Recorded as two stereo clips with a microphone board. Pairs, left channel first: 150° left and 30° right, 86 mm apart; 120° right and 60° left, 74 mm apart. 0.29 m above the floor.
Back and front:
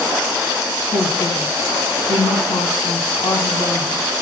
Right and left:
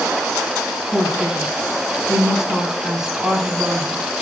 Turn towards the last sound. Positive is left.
turn(degrees=145)